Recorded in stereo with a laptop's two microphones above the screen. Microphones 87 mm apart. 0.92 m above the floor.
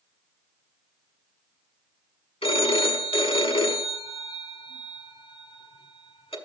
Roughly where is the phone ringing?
Left.